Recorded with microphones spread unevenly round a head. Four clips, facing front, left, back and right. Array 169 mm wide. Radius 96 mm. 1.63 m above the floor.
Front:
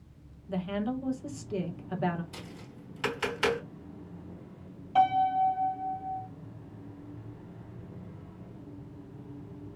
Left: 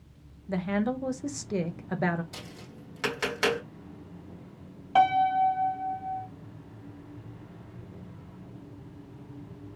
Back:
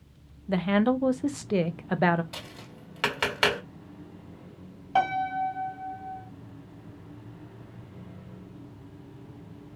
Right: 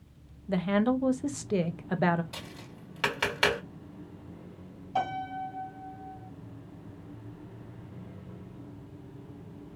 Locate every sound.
0.5 s a woman speaking: straight behind, 0.6 m
2.3 s tapping: 170° right, 2.5 m
5.0 s a piano: 135° left, 1.3 m